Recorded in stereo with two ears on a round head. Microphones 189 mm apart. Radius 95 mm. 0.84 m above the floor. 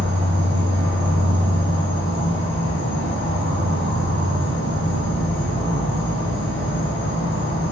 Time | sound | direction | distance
0.0 | an insect | 55° left (ahead or behind) | 1.0 m